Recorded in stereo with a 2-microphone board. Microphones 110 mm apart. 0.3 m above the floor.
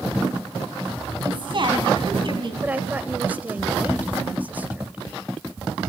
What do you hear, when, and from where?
1.2 s a woman speaking: 50° right (ahead or behind), 3 m
2.6 s a woman speaking: 15° right (ahead or behind), 1.0 m